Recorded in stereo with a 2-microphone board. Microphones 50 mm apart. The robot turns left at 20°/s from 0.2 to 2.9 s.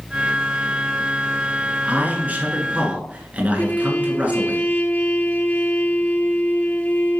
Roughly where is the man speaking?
Right.